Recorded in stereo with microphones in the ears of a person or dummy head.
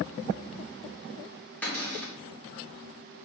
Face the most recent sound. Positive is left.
turn(degrees=10)  # may be behind; listen again after turning